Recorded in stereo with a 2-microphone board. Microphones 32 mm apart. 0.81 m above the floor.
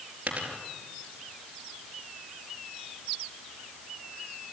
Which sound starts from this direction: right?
A dropped coin, at 0.3 s.